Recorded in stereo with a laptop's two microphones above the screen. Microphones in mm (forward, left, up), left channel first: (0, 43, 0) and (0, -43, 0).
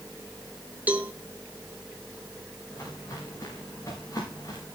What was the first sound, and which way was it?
A cowbell, 20° right (ahead or behind).